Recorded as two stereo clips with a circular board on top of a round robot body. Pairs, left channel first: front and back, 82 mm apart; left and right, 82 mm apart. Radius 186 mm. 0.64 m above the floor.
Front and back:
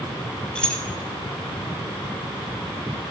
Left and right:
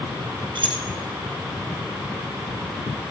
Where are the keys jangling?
80° right, 1.6 m.